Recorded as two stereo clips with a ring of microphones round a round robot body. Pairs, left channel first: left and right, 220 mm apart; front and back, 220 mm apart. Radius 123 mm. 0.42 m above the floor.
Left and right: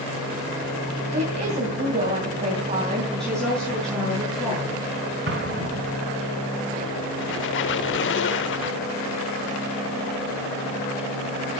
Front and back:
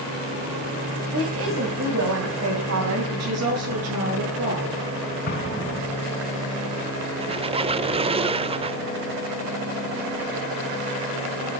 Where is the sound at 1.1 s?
150° right, 3 m.